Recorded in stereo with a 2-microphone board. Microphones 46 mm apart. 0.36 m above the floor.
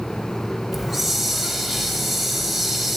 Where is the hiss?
5° right (ahead or behind), 0.8 m.